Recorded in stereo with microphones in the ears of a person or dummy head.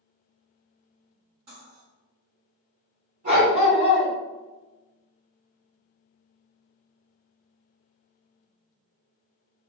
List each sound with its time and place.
1.5 s cutlery clinking: 35° right (ahead or behind), 1.7 m
3.2 s a dog barking: 40° right (ahead or behind), 1.9 m